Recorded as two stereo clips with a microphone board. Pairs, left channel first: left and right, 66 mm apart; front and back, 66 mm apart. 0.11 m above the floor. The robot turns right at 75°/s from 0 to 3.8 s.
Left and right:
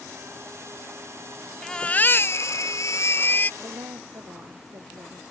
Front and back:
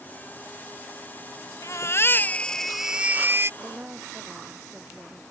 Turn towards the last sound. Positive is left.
turn(degrees=-115)